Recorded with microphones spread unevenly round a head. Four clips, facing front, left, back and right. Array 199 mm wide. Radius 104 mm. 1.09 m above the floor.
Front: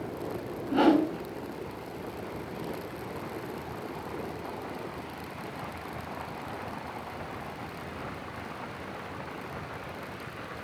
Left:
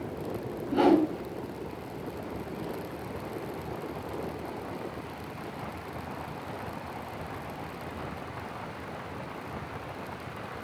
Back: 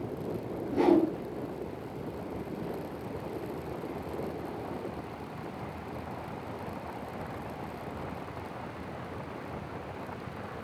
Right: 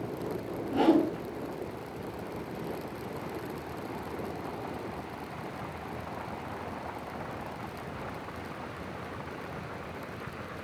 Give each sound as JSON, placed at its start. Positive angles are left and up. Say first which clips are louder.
{"t": 0.7, "sound": "a whoosh", "louder": "left 2 dB, front 2 dB", "azimuth_deg": 10, "distance_m": 8.5}